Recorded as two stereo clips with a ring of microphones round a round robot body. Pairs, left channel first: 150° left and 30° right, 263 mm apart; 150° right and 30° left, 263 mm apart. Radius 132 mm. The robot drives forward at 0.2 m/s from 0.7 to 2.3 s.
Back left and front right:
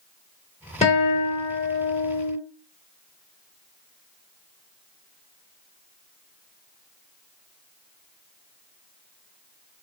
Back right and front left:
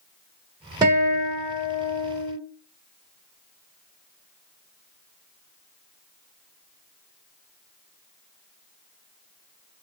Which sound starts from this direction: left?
A guitar, at 0.8 s.